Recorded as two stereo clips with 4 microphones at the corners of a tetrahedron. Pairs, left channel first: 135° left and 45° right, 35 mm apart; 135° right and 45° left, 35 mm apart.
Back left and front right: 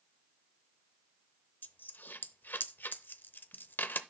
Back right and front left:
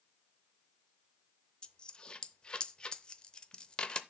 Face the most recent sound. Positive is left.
turn(degrees=160)